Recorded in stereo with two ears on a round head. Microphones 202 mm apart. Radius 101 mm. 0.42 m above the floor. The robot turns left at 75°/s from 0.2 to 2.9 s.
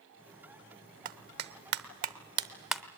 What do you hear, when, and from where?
1.1 s a clap: 35° right (ahead or behind), 0.7 m; by 2.8 s 5° left (ahead or behind), 0.7 m